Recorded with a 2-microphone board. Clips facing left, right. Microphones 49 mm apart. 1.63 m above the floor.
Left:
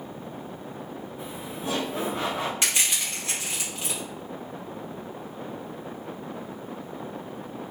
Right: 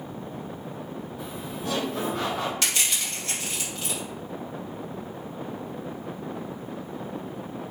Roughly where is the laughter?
Left.